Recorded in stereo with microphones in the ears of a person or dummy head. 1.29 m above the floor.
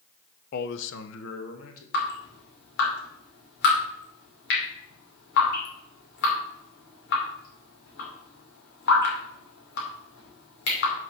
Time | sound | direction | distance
0.5 | a man speaking | 50° left (ahead or behind) | 0.5 m
1.9 | dripping | 65° left (ahead or behind) | 2.5 m